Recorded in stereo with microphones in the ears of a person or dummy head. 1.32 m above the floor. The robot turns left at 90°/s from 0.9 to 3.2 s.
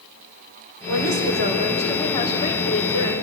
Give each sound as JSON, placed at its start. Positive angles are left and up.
{"t": 0.9, "sound": "a woman speaking", "azimuth_deg": -85, "distance_m": 5.5}